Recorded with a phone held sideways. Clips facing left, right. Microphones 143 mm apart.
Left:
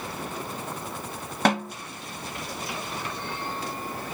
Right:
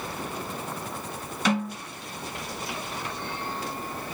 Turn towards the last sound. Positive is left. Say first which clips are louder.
# left 2 dB
turn(degrees=65)  # may be behind; listen again after turning